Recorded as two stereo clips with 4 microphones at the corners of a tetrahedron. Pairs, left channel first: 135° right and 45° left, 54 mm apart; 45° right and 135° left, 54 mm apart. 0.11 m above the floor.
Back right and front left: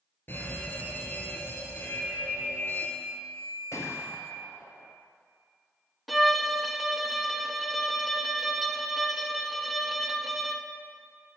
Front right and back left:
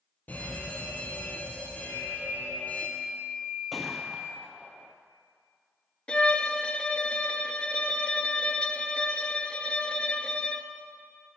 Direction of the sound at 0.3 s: 95° right.